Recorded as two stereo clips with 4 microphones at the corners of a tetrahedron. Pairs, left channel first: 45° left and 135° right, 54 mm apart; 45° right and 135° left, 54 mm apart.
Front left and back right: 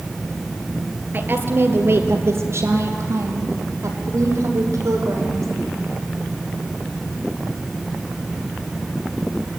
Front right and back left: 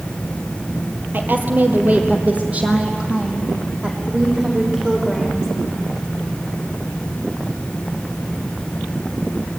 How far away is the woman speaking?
About 3 m.